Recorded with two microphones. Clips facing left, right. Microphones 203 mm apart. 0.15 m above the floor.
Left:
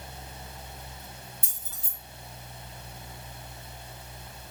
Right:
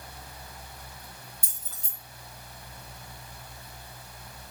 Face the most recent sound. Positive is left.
turn(degrees=5)  # may be behind; listen again after turning